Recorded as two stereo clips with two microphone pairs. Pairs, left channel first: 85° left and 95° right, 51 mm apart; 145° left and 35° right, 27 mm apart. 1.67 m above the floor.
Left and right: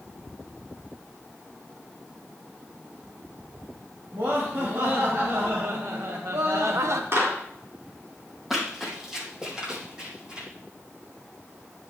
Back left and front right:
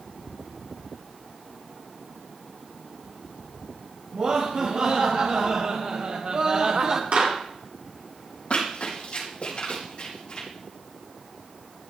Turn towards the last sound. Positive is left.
turn(degrees=-165)